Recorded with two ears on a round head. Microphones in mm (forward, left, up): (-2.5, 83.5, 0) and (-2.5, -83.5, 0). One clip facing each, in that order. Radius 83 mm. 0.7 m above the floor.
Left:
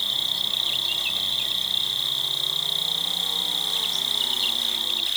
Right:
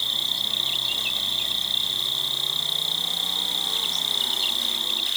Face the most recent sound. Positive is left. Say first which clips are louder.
# even
turn(degrees=-75)  # may be behind; listen again after turning